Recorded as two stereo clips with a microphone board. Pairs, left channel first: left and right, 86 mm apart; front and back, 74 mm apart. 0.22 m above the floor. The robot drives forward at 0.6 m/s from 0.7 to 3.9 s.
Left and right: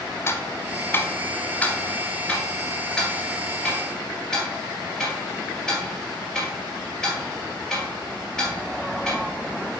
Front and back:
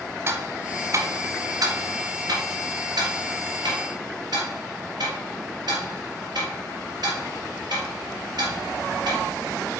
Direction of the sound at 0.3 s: 140° left.